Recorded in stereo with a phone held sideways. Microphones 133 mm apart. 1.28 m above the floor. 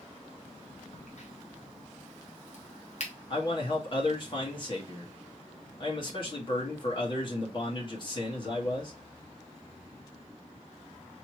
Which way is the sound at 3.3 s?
40° left (ahead or behind).